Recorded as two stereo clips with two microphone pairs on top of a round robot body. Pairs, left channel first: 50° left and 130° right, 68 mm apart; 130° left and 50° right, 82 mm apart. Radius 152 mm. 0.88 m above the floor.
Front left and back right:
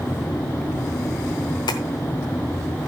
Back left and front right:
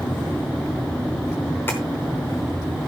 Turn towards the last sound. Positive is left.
turn(degrees=60)